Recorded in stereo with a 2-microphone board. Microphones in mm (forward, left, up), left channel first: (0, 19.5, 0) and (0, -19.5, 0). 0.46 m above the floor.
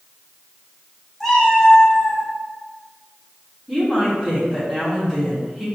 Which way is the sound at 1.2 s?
Centre (ahead or behind).